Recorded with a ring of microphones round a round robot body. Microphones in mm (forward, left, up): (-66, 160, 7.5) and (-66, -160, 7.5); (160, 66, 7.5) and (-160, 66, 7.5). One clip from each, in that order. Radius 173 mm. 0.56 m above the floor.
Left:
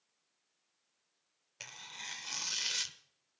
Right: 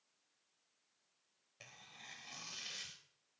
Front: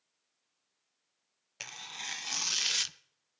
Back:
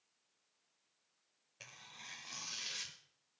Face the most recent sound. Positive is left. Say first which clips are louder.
# left 10 dB, front 12 dB
turn(degrees=35)